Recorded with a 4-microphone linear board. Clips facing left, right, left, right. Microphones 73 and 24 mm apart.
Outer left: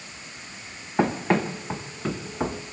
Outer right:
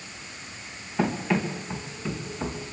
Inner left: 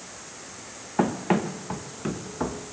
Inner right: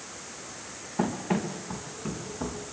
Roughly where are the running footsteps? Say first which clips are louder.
Outer left 3 dB, inner left 5 dB; left.